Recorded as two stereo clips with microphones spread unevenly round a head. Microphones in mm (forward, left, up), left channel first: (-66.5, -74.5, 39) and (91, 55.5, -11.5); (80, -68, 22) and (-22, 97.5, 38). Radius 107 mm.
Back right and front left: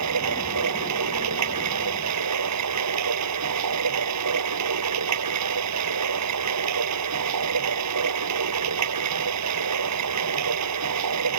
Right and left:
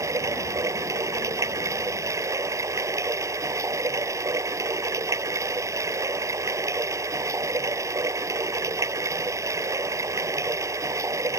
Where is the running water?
45° left.